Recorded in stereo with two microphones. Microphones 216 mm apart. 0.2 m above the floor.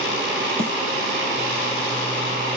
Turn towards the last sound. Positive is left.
turn(degrees=-85)